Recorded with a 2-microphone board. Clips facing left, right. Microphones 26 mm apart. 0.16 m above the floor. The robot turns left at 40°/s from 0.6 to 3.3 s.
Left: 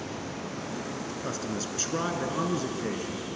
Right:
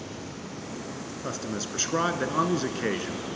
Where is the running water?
75° left, 5.5 m; by 3.4 s 35° right, 5.5 m.